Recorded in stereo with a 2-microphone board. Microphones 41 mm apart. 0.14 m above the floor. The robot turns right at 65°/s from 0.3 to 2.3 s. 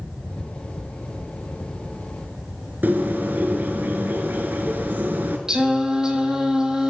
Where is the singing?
15° right (ahead or behind), 0.9 m.